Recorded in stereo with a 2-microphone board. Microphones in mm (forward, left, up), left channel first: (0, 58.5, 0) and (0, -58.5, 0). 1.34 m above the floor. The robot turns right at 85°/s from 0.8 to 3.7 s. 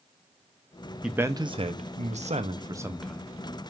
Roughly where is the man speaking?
Behind.